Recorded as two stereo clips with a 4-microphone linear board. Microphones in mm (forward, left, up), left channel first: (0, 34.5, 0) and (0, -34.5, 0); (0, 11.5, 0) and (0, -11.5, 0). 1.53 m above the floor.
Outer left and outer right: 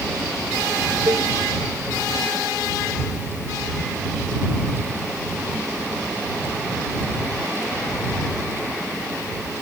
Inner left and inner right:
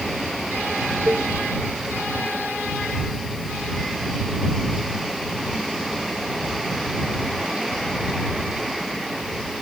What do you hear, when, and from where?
1.1 s a cowbell: 60° right (ahead or behind)